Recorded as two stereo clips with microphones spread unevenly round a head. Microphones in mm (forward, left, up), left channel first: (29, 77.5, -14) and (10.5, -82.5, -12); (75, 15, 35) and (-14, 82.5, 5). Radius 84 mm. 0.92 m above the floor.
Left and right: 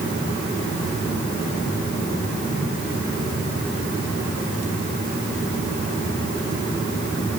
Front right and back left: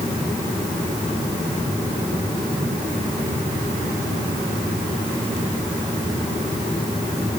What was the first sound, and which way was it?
Only background noise.